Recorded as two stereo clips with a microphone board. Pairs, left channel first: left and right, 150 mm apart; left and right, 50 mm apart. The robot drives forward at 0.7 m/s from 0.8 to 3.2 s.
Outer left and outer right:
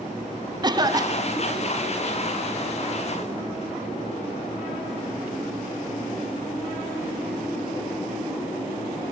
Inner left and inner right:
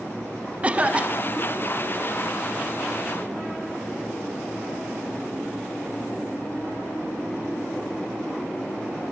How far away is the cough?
About 0.6 m.